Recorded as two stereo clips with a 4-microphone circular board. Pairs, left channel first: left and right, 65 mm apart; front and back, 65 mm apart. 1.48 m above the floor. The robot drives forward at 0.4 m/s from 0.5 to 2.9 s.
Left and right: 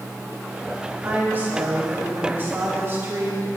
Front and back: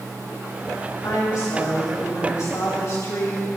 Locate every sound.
1.0 s a woman speaking: 30° right, 3.5 m; by 3.6 s 40° right, 3 m